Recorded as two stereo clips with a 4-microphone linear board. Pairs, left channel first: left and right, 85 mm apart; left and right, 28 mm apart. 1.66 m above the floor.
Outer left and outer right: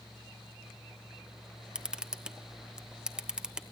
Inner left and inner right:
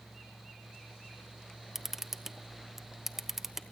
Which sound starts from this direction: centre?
A camera shutter, at 1.8 s.